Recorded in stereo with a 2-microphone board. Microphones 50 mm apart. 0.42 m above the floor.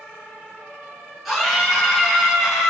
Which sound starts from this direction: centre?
A scream, at 1.2 s.